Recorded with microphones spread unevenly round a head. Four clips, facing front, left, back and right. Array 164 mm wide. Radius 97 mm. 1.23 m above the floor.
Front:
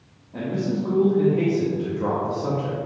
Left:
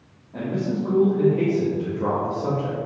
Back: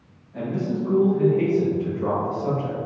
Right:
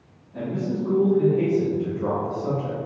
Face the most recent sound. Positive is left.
turn(degrees=50)